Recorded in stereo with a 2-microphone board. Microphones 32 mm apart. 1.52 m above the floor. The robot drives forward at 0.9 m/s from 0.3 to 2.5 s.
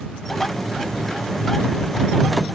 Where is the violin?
I don't hear a violin.